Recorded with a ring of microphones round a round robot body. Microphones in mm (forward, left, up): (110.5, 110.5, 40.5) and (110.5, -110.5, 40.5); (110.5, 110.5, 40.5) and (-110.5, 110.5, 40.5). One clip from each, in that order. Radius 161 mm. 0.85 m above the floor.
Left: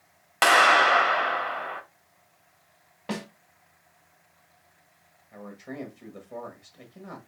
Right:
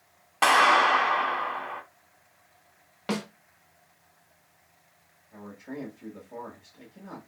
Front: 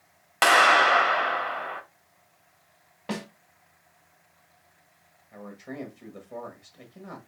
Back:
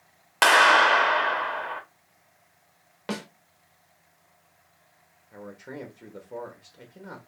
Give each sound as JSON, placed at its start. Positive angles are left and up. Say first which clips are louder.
{"t": 0.4, "sound": "a clap", "louder": "left 2 dB, back 1 dB", "azimuth_deg": 115, "distance_m": 1.4}
{"t": 3.1, "sound": "a snare drum", "louder": "right 3 dB, back 1 dB", "azimuth_deg": -140, "distance_m": 1.6}
{"t": 5.3, "sound": "a man speaking", "louder": "left 1 dB, even", "azimuth_deg": 120, "distance_m": 1.5}